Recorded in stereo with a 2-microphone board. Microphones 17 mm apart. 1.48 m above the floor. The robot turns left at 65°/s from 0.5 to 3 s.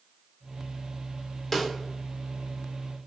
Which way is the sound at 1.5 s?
15° left (ahead or behind).